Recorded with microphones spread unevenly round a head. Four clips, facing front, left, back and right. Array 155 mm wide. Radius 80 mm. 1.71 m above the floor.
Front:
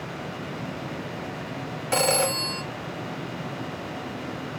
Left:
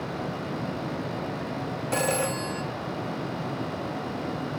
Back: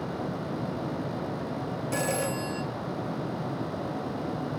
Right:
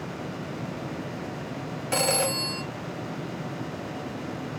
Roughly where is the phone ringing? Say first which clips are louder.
Right 1 dB, front 6 dB; ahead.